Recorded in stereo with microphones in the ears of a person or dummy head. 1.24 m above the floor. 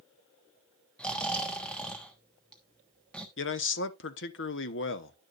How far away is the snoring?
About 1.2 m.